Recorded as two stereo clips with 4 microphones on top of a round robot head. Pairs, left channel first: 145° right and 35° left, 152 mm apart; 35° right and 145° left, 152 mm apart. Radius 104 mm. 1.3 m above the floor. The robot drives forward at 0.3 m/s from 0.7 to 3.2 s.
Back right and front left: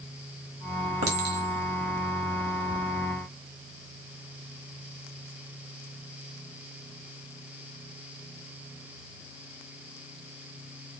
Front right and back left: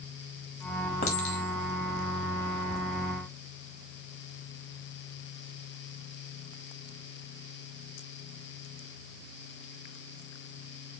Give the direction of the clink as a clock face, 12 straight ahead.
12 o'clock.